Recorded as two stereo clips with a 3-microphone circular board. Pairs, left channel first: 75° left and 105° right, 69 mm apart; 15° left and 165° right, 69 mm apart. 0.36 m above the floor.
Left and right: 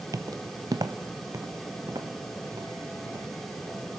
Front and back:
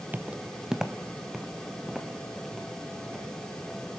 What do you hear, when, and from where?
0.1 s footsteps: 105° right, 0.5 m; by 3.8 s 75° right, 5.5 m